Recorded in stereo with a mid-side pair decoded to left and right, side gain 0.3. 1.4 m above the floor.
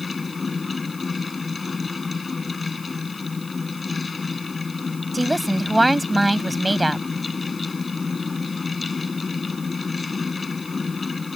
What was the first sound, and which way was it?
A fan, 40° left.